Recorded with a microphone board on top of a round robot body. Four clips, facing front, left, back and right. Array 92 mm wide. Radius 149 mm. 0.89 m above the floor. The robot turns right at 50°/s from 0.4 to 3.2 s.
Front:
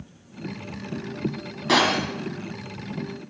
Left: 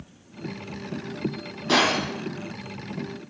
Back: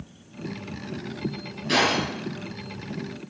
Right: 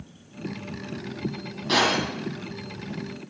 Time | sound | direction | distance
1.7 | breaking glass | 10° left | 3 m